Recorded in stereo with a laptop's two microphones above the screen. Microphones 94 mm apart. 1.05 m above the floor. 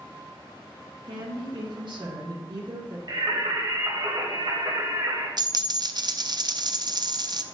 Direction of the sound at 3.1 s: 50° right (ahead or behind).